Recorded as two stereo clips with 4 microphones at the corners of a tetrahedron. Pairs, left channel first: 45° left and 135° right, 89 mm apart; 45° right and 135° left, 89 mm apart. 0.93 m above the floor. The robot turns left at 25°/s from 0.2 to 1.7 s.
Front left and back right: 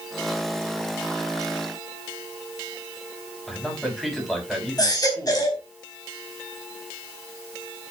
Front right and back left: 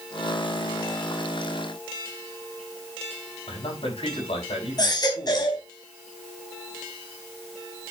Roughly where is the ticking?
I don't hear ticking.